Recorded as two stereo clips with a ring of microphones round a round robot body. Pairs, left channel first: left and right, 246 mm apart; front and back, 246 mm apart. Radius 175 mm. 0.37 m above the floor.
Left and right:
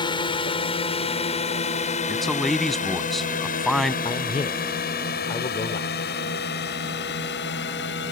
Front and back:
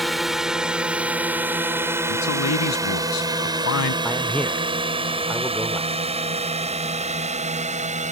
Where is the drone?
90° left; by 8.1 s 125° left.